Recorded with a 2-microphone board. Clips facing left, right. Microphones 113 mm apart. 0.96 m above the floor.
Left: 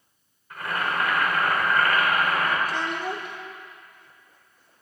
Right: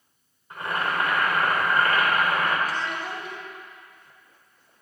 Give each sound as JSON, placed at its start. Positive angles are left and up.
{"t": 0.5, "sound": "boiling", "side_deg": -25, "distance_m": 3.5}
{"t": 2.6, "sound": "a child speaking", "side_deg": 60, "distance_m": 2.5}